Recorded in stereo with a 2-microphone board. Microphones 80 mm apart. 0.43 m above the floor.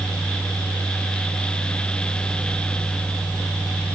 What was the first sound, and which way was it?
Only background noise.